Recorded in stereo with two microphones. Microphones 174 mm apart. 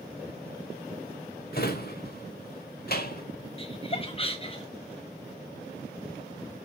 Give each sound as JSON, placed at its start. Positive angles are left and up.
{"t": 1.5, "sound": "a drawer", "side_deg": 60, "distance_m": 1.3}
{"t": 3.6, "sound": "laughter", "side_deg": 35, "distance_m": 0.7}